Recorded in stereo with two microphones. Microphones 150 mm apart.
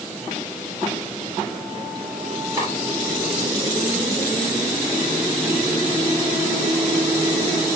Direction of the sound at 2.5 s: 20° right (ahead or behind).